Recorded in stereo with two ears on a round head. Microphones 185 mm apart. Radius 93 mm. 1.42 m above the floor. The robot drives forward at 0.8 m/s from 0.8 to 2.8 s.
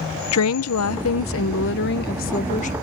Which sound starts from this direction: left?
A woman speaking, at 0.3 s.